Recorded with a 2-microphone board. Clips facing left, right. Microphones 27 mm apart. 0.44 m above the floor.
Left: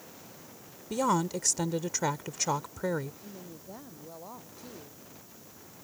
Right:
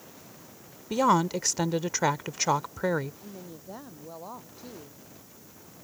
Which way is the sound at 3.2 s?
20° right (ahead or behind).